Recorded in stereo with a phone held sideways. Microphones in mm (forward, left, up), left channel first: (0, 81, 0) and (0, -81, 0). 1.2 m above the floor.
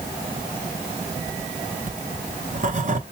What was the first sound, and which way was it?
Writing, 50° right (ahead or behind).